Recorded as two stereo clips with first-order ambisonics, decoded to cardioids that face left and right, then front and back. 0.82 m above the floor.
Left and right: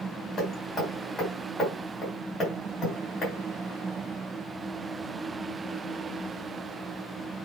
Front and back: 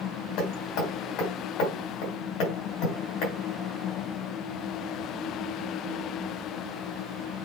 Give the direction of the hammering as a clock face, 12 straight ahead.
11 o'clock.